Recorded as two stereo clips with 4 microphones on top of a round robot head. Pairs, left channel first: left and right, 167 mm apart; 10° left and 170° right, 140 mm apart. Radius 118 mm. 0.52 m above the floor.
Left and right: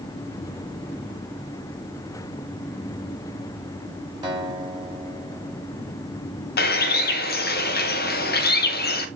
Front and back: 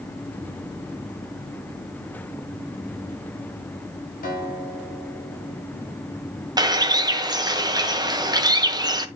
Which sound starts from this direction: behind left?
A bird, at 6.6 s.